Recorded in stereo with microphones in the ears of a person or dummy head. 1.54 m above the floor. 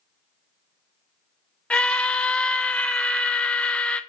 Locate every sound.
1.7 s a scream: centre (ahead or behind), 0.6 m